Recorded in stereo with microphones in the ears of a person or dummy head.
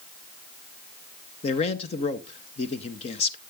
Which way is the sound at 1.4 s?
30° left (ahead or behind).